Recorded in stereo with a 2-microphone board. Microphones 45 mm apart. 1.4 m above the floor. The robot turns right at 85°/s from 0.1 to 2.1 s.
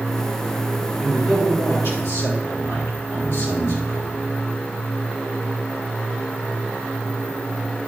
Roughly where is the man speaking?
Ahead.